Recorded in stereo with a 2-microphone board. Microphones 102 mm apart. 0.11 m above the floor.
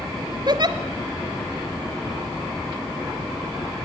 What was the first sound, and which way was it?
A giggle, 45° right (ahead or behind).